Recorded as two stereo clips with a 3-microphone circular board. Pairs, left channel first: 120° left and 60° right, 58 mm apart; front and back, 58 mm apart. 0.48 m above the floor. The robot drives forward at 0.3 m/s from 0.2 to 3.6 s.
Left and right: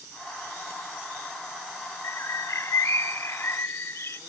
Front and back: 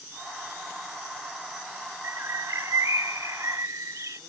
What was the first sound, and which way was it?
A bird, 150° left.